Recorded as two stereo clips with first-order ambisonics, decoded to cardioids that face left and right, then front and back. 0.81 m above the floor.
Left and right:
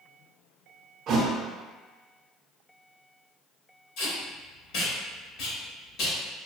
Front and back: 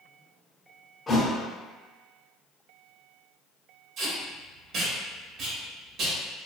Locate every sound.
1.1 s a thud: 65° right, 0.5 m
4.0 s tape being pulled: 125° left, 1.4 m